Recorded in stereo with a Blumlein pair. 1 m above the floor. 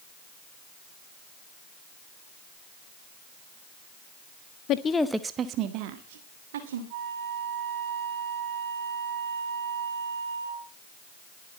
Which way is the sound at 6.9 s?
50° right.